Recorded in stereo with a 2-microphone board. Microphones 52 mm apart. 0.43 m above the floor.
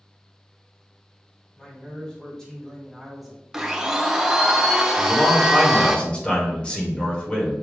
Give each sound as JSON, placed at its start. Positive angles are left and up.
{"t": 1.6, "sound": "a man speaking", "side_deg": 20, "distance_m": 2.5}
{"t": 3.5, "sound": "a blender", "side_deg": -10, "distance_m": 0.6}
{"t": 5.0, "sound": "a man speaking", "side_deg": 20, "distance_m": 1.4}